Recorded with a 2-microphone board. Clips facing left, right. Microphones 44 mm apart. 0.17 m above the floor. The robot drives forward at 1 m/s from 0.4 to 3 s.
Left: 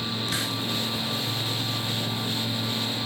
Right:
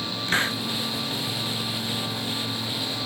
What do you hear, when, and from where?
0.3 s a hiss: 35° right (ahead or behind)